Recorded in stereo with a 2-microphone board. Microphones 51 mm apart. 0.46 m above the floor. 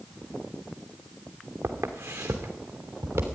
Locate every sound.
1.6 s footsteps: 75° right (ahead or behind), 2 m; by 3.3 s 80° right, 3 m